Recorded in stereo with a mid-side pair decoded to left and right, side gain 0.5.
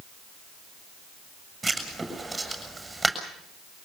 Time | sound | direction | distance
1.6 | writing | 15° right | 7.5 m